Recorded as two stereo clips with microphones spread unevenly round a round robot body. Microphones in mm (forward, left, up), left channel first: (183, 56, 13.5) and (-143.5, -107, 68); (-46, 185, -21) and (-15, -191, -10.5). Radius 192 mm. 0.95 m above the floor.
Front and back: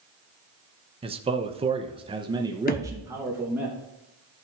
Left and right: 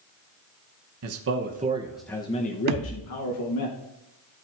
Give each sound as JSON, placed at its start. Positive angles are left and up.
{"t": 1.0, "sound": "a man speaking", "azimuth_deg": -75, "distance_m": 0.8}
{"t": 2.7, "sound": "a thud", "azimuth_deg": -45, "distance_m": 0.7}